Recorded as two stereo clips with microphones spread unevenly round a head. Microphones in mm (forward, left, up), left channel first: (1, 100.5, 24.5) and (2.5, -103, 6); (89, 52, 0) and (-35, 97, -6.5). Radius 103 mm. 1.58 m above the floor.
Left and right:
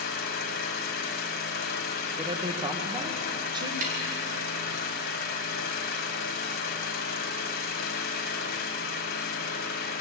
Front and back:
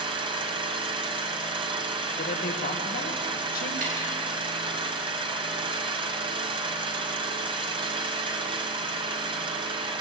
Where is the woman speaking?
20° right, 2.0 m.